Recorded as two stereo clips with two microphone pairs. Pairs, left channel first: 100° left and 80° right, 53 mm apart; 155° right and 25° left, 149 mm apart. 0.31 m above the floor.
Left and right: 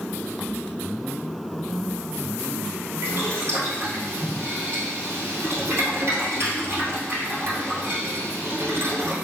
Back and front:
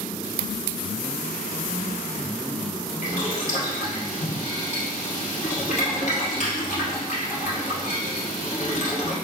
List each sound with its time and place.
3.0 s boiling: 120° right, 1.5 m